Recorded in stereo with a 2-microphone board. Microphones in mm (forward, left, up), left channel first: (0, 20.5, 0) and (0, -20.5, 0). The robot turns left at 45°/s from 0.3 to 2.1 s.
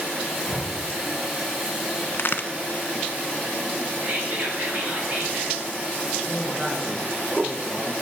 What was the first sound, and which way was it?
A microwave, 15° left (ahead or behind).